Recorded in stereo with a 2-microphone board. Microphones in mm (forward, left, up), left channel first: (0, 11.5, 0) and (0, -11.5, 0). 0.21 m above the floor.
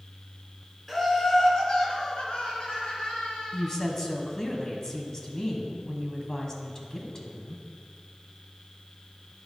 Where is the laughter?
5° left (ahead or behind), 1.9 m; by 3.7 s 70° left (ahead or behind), 3.5 m.